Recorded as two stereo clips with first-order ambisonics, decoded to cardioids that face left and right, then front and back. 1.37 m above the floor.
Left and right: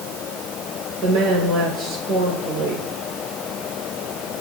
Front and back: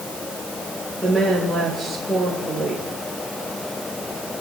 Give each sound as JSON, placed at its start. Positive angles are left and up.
{"t": 1.0, "sound": "a woman speaking", "azimuth_deg": -95, "distance_m": 4.5}